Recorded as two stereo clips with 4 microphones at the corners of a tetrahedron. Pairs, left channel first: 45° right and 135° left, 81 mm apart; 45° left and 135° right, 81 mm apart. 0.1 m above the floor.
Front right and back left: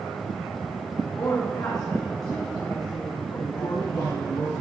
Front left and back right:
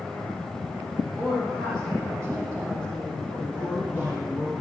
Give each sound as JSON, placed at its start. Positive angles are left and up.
{"t": 1.2, "sound": "a woman speaking", "azimuth_deg": -80, "distance_m": 5.5}
{"t": 3.4, "sound": "a man speaking", "azimuth_deg": -30, "distance_m": 7.0}